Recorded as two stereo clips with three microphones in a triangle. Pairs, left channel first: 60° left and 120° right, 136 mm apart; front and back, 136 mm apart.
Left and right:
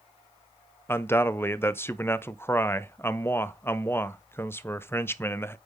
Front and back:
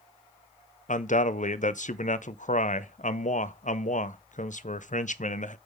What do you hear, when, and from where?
0.9 s a man speaking: 15° right, 0.5 m